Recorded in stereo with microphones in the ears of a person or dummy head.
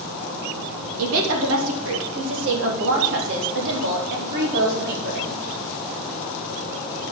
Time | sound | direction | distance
1.0 | a woman speaking | 80° right | 2.5 m